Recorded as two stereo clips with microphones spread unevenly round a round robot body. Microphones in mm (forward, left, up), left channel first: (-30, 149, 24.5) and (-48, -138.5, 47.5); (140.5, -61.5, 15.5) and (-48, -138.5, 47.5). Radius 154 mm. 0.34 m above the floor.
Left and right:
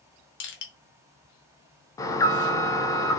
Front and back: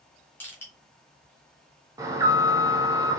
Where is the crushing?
90° left, 1.1 m.